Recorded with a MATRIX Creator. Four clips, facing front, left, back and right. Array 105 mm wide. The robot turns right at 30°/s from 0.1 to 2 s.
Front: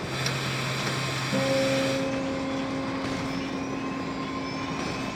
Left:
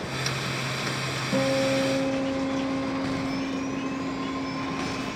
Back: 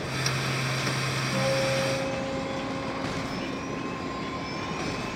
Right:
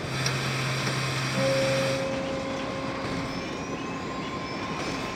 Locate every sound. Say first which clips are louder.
1.3 s a guitar: left 2 dB, front 2 dB; 70° left, 10 m; by 5.1 s 90° left, 10 m